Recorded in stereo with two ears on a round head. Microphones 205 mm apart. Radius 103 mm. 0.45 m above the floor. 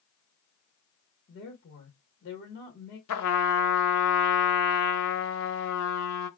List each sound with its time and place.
1.3 s a woman speaking: 40° left (ahead or behind), 1.1 m
3.1 s a trumpet: 85° left, 0.7 m